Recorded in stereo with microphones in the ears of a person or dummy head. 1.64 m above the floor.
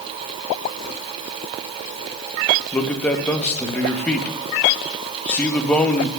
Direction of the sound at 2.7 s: 5° left (ahead or behind).